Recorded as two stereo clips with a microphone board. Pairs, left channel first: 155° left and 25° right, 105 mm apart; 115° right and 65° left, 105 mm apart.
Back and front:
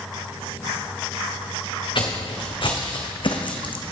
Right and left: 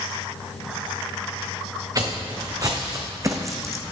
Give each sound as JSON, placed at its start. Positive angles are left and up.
{"t": 1.9, "sound": "footsteps", "azimuth_deg": 120, "distance_m": 2.0}